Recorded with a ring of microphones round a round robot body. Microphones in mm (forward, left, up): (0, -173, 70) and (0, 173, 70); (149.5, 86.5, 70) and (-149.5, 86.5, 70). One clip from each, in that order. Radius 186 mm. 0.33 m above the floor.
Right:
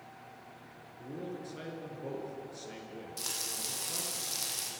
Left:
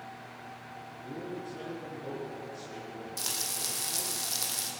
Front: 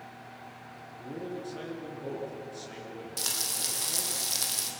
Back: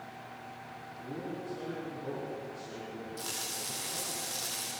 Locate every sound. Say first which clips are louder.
1.0 s a man speaking: left 1 dB, front 2 dB; 25° right, 6.5 m
3.2 s frying: left 3 dB, front 7 dB; 10° left, 4 m